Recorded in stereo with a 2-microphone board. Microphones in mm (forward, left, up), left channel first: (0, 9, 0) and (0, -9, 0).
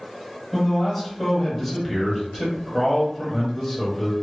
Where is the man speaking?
5° left (ahead or behind), 1.1 m.